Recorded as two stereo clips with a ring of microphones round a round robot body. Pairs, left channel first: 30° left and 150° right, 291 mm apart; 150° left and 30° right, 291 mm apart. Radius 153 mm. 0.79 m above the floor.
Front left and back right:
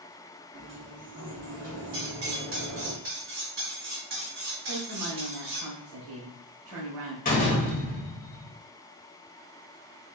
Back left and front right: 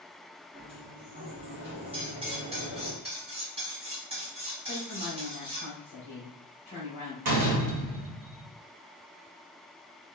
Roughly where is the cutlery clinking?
Right.